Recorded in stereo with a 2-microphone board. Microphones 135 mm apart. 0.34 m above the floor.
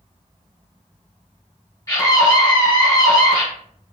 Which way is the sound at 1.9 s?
25° left (ahead or behind).